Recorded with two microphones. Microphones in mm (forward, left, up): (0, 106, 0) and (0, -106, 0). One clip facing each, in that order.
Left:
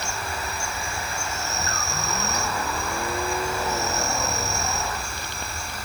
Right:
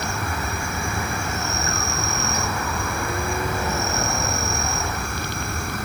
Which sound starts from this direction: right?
An insect, at 0.0 s.